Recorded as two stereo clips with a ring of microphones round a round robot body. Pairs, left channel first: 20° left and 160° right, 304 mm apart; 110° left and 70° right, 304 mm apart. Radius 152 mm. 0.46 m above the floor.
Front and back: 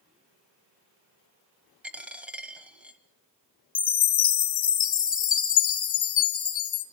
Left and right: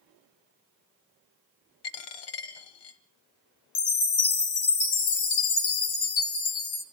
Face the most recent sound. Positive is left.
turn(degrees=85)